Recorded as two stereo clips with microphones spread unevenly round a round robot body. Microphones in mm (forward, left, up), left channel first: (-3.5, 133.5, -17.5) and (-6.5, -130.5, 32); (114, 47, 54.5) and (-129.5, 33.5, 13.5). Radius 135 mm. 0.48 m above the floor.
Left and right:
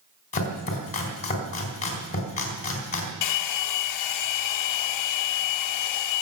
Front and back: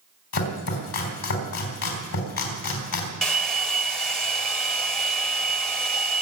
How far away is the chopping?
About 4 m.